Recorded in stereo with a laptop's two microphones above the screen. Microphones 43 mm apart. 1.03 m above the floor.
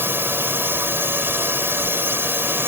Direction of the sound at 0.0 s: 70° right (ahead or behind).